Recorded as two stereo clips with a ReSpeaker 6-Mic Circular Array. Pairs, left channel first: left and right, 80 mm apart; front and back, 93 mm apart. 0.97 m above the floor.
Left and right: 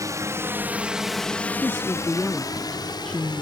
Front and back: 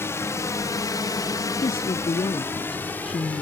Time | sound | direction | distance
0.0 | a drone | 55° right | ?
1.6 | a woman speaking | 10° left | ?